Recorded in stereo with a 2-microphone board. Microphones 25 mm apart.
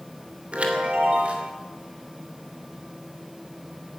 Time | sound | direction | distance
0.5 | a chime | 60° right (ahead or behind) | 2.5 m